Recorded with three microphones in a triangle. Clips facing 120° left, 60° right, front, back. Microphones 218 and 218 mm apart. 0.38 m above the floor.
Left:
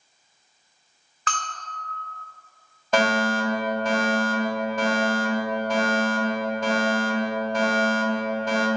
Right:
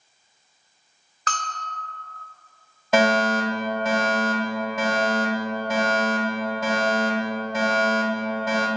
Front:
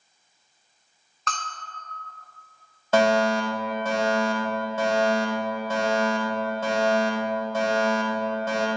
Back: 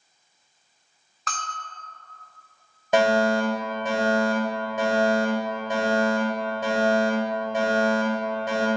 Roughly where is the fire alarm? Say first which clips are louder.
Right 2 dB, back 1 dB; behind right.